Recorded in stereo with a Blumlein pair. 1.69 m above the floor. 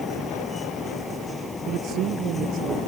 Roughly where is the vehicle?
Ahead.